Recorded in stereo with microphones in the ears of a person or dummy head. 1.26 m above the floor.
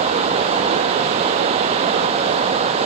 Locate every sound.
0.0 s running water: 30° right (ahead or behind), 1.0 m